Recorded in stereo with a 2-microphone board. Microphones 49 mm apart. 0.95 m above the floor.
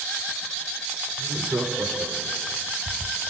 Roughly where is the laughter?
Right.